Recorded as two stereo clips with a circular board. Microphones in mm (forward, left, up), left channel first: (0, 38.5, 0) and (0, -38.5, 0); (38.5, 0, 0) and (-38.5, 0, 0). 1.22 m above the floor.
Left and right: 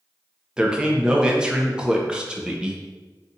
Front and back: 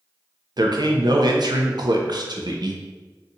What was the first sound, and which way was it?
A man speaking, 170° right.